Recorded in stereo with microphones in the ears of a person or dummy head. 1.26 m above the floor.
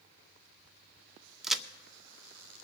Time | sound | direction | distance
1.4 | a crack | centre (ahead or behind) | 0.5 m